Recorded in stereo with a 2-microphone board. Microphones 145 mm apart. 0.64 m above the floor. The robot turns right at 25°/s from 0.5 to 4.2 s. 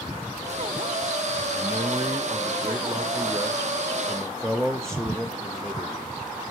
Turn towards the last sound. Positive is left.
turn(degrees=5)